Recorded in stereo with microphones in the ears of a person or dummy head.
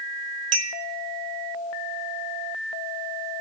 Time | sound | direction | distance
0.5 | a clink | 45° right (ahead or behind) | 0.6 m